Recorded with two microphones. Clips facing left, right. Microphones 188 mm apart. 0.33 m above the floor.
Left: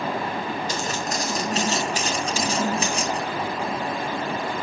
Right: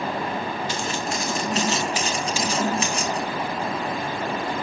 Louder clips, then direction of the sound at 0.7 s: Even; 40° left (ahead or behind).